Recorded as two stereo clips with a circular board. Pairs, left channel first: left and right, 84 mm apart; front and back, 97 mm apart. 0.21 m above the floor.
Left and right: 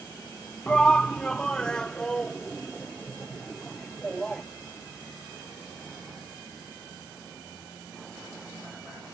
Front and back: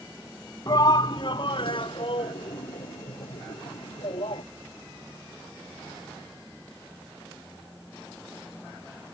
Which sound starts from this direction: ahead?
A shout, at 0.7 s.